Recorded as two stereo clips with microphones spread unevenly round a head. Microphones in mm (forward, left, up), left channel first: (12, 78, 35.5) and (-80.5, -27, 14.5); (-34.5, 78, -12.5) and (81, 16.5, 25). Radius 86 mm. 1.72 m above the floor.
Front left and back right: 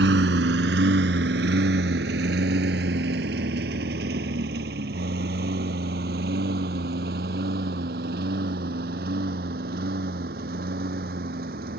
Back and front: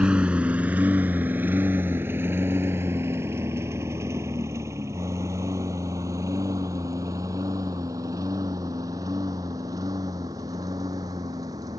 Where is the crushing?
No crushing in this recording.